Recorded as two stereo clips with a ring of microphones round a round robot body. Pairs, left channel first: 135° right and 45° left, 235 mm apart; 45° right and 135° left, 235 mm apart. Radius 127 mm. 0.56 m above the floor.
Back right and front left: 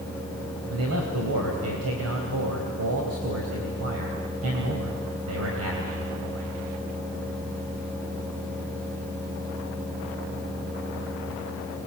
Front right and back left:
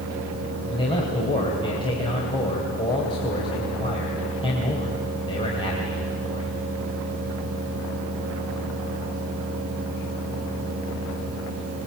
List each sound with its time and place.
0.7 s a man speaking: 25° left, 3.5 m